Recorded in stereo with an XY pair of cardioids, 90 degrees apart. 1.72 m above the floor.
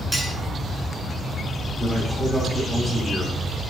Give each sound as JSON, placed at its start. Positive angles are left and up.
{"t": 0.1, "sound": "cutlery clinking", "azimuth_deg": -15, "distance_m": 6.0}
{"t": 1.8, "sound": "a man speaking", "azimuth_deg": 0, "distance_m": 6.5}